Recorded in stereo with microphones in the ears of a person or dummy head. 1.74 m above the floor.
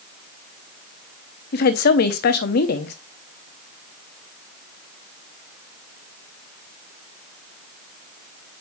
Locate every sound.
1.5 s a woman speaking: 50° left (ahead or behind), 0.9 m